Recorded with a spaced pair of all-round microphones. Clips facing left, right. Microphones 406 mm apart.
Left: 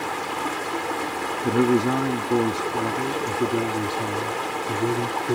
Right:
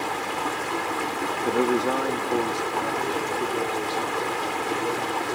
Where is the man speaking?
35° left (ahead or behind); by 5.4 s 75° left (ahead or behind).